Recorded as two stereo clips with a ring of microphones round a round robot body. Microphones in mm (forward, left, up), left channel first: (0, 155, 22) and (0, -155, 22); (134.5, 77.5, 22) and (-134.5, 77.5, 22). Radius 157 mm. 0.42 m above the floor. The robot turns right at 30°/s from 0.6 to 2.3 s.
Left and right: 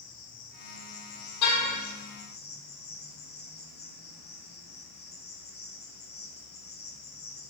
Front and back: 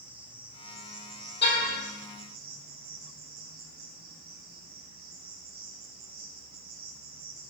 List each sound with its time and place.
0.0 s an insect: 95° left, 5 m; by 7.5 s 145° left, 5 m
1.4 s a car horn: 50° left, 7 m; by 1.8 s 60° left, 7 m